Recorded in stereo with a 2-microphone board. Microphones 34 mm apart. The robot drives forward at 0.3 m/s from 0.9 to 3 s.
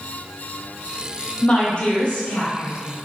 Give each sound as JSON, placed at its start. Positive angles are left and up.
{"t": 1.4, "sound": "a woman speaking", "side_deg": 30, "distance_m": 0.9}